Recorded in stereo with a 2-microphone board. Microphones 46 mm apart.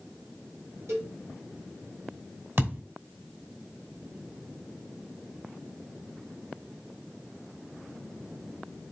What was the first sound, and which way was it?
A cowbell, 75° right (ahead or behind).